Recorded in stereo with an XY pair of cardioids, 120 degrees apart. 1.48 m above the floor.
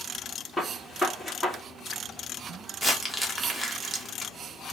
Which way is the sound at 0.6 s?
Straight ahead.